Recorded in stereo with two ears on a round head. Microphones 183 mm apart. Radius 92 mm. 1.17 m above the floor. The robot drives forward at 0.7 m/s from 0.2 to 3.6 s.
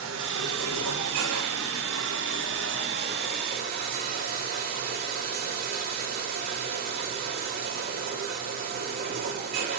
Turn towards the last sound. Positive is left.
turn(degrees=-45)  # may be behind; listen again after turning